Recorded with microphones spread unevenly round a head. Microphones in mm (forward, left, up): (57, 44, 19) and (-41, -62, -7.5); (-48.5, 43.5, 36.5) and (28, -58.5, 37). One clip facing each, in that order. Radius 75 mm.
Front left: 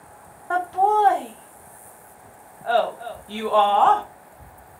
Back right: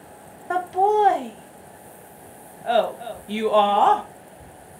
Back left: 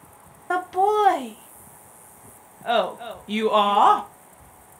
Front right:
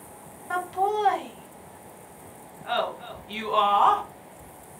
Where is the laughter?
160° left, 0.5 m.